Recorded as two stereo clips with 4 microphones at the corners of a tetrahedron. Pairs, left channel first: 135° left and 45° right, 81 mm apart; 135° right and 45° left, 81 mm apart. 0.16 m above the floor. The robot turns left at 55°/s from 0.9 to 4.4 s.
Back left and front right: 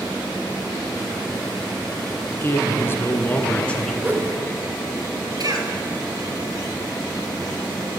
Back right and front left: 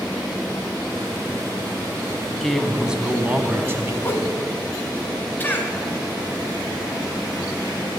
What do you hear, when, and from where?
2.3 s a man speaking: 150° left, 1.3 m; by 3.9 s 60° left, 1.3 m
4.0 s a whoosh: 90° right, 1.0 m; by 4.3 s 110° right, 1.0 m
5.4 s a cough: 70° right, 2.5 m